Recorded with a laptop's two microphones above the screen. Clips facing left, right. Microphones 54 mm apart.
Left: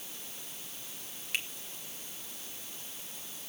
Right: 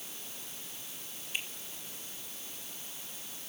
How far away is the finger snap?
About 1.3 m.